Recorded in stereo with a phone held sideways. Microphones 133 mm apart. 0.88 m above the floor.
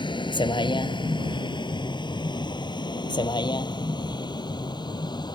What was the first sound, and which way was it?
A vehicle, 35° left (ahead or behind).